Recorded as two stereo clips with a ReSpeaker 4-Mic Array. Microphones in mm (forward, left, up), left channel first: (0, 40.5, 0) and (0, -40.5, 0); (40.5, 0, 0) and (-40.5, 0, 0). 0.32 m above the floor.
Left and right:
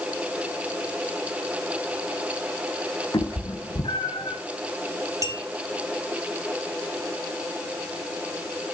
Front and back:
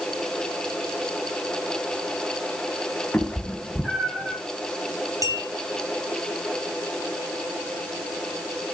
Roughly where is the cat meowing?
Left.